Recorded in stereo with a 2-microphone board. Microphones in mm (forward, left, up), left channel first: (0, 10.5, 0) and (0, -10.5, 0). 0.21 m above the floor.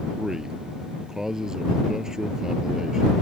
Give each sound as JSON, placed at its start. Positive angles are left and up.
{"t": 0.2, "sound": "a man speaking", "side_deg": -30}